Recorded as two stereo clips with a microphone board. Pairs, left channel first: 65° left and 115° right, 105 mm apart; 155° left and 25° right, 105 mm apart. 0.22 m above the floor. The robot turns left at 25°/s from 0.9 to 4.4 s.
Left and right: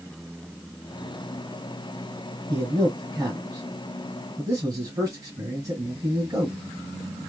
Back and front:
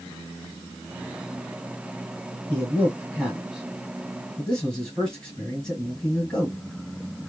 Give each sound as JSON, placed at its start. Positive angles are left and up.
{"t": 2.5, "sound": "a man speaking", "azimuth_deg": -75, "distance_m": 1.6}